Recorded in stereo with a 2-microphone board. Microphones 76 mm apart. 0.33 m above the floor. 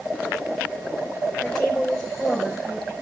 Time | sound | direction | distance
1.4 | a woman speaking | 5° left (ahead or behind) | 5 m